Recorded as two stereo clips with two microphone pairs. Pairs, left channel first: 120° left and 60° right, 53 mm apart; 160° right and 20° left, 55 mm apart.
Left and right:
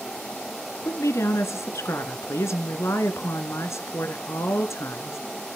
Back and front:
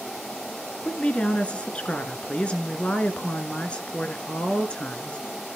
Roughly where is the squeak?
I don't hear a squeak.